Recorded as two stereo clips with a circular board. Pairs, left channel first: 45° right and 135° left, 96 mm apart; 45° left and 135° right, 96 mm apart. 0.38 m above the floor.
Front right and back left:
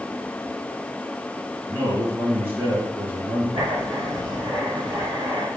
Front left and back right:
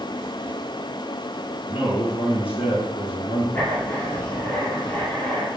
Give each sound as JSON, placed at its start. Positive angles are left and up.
{"t": 1.7, "sound": "a man speaking", "azimuth_deg": 70, "distance_m": 5.0}
{"t": 3.5, "sound": "writing", "azimuth_deg": 115, "distance_m": 4.5}